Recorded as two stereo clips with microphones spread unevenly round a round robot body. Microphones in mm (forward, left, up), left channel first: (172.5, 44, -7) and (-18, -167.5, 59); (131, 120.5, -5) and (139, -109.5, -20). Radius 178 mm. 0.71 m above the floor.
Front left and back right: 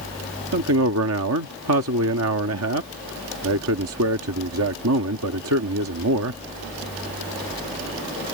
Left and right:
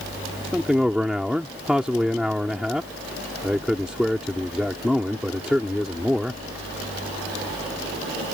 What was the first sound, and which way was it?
A man speaking, 175° right.